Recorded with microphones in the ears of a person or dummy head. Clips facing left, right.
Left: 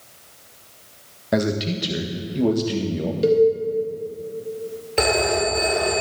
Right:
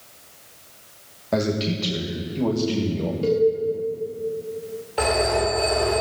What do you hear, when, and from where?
1.3 s a man speaking: 15° left (ahead or behind), 1.6 m
3.2 s a cowbell: 25° left (ahead or behind), 1.2 m
5.0 s a phone ringing: 35° left (ahead or behind), 4 m